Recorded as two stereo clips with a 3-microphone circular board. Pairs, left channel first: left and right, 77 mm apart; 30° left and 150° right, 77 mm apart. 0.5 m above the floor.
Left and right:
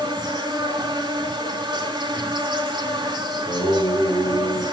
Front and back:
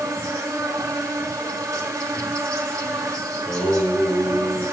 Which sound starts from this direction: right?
An insect, at 0.0 s.